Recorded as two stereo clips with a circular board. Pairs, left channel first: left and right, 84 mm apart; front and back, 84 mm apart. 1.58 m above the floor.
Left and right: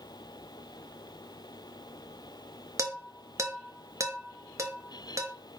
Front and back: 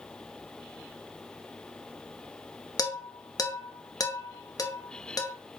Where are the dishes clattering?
40° right, 1.7 m.